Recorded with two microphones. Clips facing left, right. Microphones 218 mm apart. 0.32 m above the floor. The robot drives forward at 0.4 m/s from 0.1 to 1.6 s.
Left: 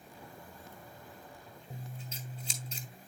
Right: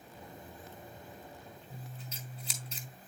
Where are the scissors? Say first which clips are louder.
Left 5 dB; 30° left (ahead or behind), 1.8 m.